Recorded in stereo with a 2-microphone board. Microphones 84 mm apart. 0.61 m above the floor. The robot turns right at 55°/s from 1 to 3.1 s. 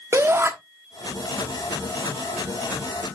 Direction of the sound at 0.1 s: 30° right (ahead or behind).